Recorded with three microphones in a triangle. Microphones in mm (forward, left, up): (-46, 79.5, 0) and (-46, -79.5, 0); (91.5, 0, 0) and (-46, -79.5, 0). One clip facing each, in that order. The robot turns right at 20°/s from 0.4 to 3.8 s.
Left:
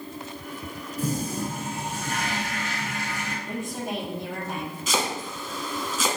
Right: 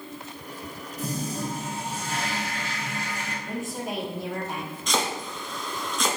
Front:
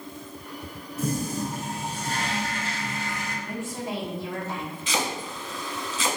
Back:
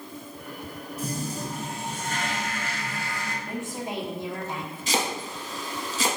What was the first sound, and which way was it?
A toilet flushing, 55° left.